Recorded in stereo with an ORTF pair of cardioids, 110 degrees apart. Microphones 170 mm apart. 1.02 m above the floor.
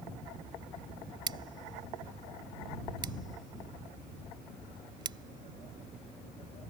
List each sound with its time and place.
1.3 s scissors: 25° right